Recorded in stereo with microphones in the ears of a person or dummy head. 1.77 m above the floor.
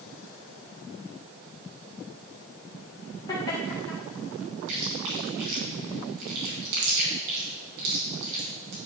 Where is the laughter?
25° left (ahead or behind), 2 m.